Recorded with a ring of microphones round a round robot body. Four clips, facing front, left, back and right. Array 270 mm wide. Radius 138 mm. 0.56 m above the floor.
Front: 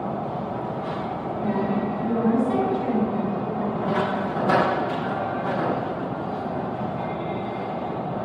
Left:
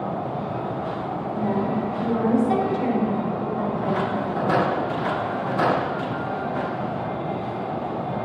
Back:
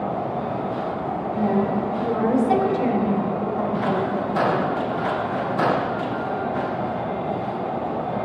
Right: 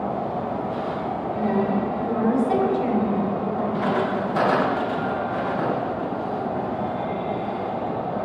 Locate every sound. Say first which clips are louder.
1.3 s a woman speaking: right 2 dB, back 3 dB; 160° right, 3.5 m; by 4.2 s 155° left, 3.5 m